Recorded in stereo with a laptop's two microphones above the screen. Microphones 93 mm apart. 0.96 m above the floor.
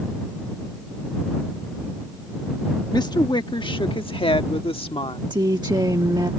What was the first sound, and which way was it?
A woman speaking, 45° left (ahead or behind).